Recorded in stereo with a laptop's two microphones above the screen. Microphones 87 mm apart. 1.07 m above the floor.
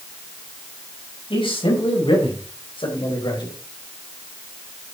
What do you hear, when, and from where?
1.3 s a man speaking: 80° left, 5 m; by 3.5 s 55° left (ahead or behind), 4 m